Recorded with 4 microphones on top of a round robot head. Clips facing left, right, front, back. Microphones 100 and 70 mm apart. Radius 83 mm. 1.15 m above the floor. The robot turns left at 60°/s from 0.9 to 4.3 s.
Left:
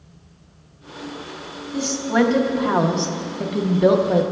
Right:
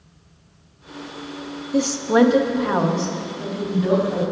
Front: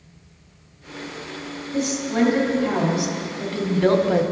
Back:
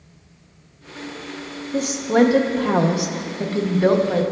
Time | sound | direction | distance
1.7 | a woman speaking | 130° right | 0.7 m